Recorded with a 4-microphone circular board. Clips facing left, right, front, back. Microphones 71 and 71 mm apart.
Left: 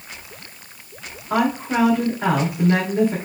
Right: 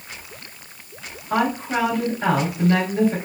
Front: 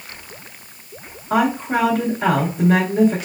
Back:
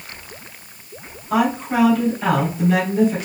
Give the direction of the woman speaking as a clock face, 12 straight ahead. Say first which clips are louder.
Left 1 dB, front 1 dB; 11 o'clock.